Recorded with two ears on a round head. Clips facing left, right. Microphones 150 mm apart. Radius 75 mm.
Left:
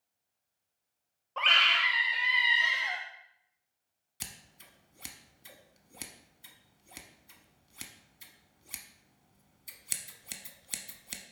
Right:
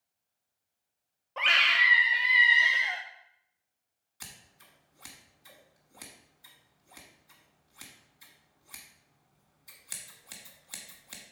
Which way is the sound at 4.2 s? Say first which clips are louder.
Left 2 dB; 30° left (ahead or behind).